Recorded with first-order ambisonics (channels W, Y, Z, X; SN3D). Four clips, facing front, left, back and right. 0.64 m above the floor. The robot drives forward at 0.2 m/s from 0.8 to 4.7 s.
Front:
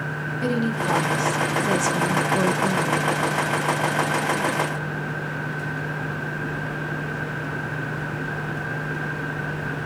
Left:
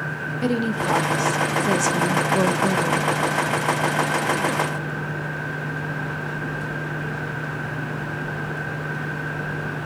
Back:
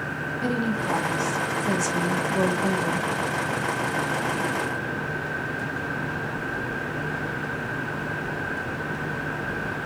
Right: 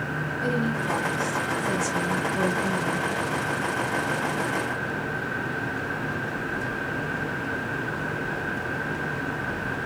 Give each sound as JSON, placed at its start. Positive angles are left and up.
{"t": 0.4, "sound": "a woman speaking", "azimuth_deg": 70, "distance_m": 1.0}